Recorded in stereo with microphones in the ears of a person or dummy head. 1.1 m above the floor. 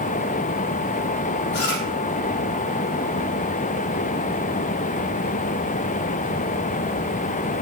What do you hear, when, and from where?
1.5 s chewing: 60° left (ahead or behind), 5 m